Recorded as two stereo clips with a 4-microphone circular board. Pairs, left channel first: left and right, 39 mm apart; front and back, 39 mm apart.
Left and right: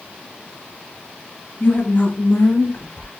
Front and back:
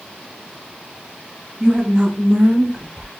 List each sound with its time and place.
1.6 s a woman speaking: 130° left, 1.4 m; by 3.1 s 120° left, 2.5 m